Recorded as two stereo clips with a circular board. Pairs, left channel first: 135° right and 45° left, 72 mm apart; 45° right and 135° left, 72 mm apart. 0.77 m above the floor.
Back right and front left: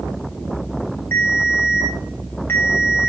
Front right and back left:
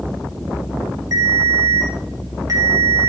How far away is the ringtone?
About 2.5 m.